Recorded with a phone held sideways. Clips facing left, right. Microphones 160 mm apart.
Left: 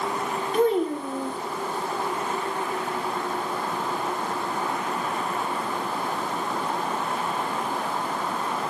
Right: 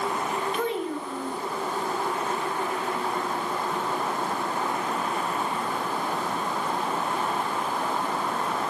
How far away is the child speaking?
About 3.5 m.